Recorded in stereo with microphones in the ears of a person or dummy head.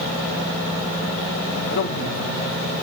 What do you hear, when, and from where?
1.7 s a man speaking: 70° left (ahead or behind), 1.8 m